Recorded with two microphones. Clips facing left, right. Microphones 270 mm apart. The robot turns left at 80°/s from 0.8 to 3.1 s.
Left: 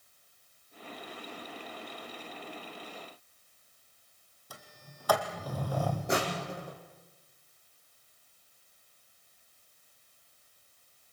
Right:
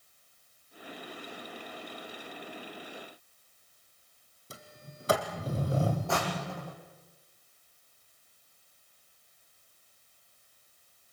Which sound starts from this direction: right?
A sliding door, at 4.5 s.